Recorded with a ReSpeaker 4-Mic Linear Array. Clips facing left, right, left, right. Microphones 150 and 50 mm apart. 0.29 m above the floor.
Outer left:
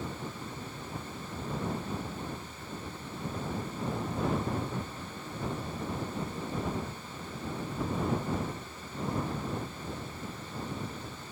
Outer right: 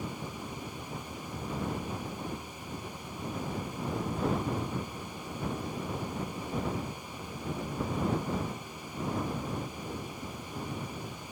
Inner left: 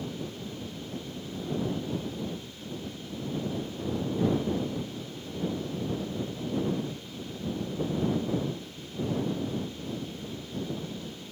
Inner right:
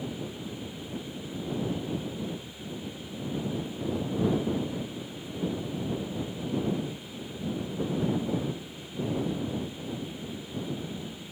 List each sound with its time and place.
Only background noise.